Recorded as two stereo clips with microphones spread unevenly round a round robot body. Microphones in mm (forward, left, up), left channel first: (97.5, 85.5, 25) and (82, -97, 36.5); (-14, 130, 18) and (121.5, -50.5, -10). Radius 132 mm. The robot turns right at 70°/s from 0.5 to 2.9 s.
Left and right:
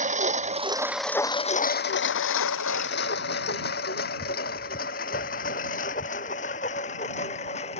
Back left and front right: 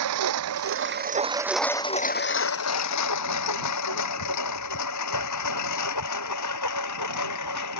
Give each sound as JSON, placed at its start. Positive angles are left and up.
{"t": 0.0, "sound": "a lawn mower", "azimuth_deg": -45}